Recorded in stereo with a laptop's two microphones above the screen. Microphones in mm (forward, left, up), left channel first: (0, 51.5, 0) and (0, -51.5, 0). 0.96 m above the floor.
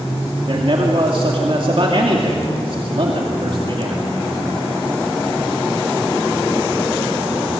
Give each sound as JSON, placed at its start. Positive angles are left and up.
{"t": 0.5, "sound": "a man speaking", "side_deg": -55, "distance_m": 2.5}